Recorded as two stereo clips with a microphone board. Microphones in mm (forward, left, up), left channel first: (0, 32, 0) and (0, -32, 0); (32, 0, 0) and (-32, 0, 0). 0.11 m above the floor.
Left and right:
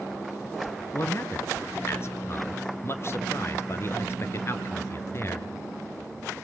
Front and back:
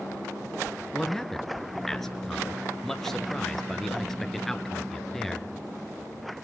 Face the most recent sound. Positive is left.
turn(degrees=85)